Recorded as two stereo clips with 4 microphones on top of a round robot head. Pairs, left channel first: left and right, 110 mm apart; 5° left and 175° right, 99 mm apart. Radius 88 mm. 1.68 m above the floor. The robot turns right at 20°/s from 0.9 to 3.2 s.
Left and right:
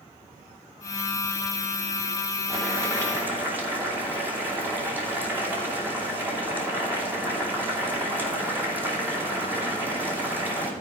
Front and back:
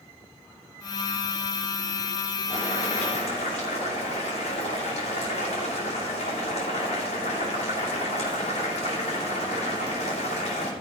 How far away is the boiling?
About 2.5 m.